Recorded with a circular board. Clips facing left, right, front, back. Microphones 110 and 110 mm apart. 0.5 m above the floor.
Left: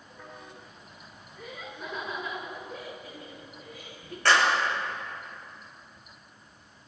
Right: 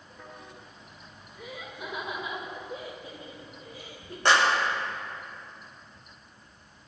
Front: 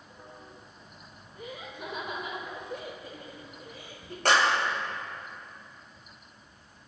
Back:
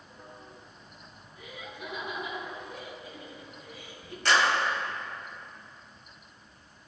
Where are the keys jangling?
No keys jangling in this recording.